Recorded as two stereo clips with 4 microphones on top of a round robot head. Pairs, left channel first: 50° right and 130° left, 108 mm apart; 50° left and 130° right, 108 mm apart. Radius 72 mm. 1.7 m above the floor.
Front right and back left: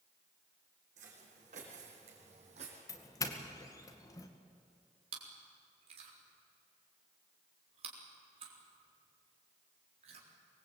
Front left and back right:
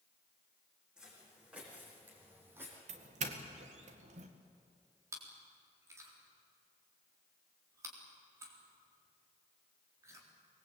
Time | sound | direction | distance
1.0 | footsteps | 145° left | 6.5 m
2.9 | a doorbell | 110° right | 2 m
5.1 | chewing | 165° left | 4 m